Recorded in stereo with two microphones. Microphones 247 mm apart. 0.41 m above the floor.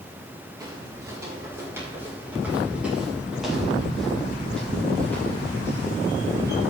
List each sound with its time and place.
0.6 s footsteps: 15° right (ahead or behind), 7 m; by 6.6 s 10° left (ahead or behind), 7 m